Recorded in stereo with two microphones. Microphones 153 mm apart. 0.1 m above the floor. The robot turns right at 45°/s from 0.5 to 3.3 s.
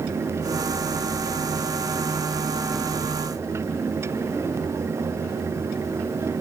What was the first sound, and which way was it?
Only background noise.